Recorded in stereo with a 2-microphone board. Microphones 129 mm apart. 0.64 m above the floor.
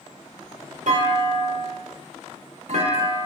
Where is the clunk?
70° right (ahead or behind), 0.7 m.